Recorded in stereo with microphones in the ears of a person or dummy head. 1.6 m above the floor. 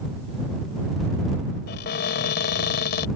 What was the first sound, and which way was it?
A cupboard door, 60° left (ahead or behind).